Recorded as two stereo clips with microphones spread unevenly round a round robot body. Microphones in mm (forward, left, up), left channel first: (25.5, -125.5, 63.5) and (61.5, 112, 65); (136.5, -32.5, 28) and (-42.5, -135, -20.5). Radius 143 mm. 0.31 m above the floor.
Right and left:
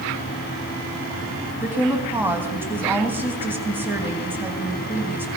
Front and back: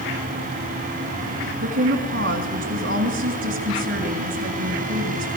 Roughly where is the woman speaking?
Behind.